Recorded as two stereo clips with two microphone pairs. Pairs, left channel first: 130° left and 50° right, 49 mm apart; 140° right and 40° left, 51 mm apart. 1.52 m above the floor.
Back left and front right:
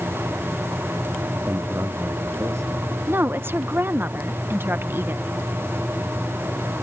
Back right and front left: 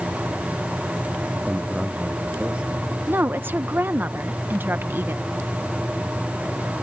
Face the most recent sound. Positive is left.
turn(degrees=-10)